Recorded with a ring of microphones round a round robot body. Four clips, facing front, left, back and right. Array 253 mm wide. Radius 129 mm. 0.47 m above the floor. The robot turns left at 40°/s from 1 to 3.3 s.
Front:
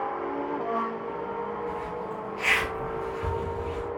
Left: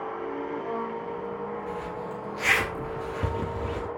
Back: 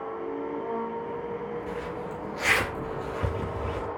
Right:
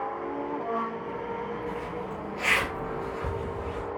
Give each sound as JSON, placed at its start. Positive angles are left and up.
{"t": 1.7, "sound": "a zipper", "azimuth_deg": 180, "distance_m": 3.0}